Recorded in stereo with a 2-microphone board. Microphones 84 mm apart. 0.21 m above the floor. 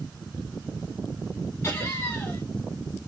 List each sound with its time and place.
1.6 s laughter: 30° left (ahead or behind), 1.4 m